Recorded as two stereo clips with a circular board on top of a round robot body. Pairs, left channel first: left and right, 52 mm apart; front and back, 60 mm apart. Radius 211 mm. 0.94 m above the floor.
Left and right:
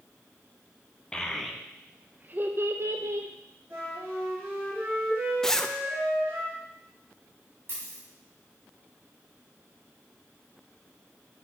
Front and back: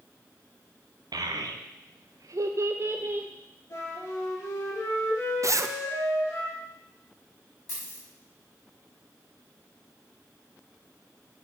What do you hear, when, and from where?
1.1 s a child speaking: 165° left, 0.8 m; by 3.3 s 120° right, 1.0 m
3.7 s a flute: 45° right, 4.5 m
5.4 s a zipper: 170° left, 0.7 m
7.7 s a dropped coin: 45° right, 3 m